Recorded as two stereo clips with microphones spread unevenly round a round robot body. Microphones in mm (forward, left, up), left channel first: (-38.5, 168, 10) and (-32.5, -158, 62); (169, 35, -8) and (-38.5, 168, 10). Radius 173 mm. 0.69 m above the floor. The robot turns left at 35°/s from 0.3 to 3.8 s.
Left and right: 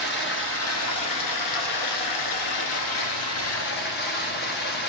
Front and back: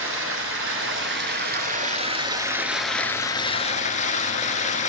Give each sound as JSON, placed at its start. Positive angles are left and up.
{"t": 0.0, "sound": "running water", "azimuth_deg": 150, "distance_m": 1.0}